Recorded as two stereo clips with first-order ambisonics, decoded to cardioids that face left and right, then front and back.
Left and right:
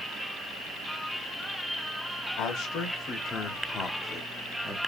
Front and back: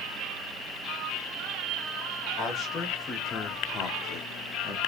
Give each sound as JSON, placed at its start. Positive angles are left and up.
{"t": 2.4, "sound": "a man speaking", "azimuth_deg": 55, "distance_m": 1.7}